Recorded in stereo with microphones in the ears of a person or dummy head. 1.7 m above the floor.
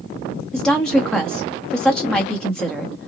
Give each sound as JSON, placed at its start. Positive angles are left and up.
{"t": 0.5, "sound": "a woman speaking", "side_deg": 0, "distance_m": 0.8}